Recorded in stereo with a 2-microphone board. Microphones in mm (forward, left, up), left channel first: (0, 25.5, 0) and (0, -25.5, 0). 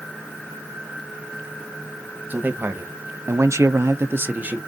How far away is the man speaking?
About 1.0 m.